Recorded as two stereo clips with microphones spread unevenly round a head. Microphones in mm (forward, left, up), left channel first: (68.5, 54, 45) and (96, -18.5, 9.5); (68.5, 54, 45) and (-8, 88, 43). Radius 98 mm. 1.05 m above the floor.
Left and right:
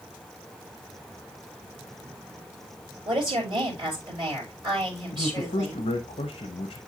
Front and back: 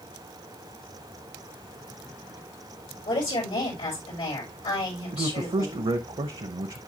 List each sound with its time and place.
3.0 s a woman speaking: 45° right, 4.5 m
5.1 s a man speaking: 135° left, 0.7 m